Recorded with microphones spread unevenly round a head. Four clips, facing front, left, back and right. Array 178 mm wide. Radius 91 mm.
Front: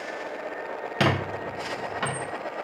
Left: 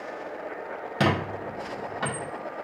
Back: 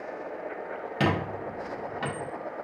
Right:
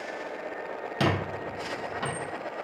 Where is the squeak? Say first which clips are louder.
Left 3 dB, front 2 dB; 25° left, 0.5 m.